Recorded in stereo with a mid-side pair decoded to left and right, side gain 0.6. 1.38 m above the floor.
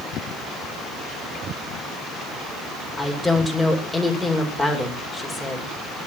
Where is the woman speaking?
10° left, 6 m.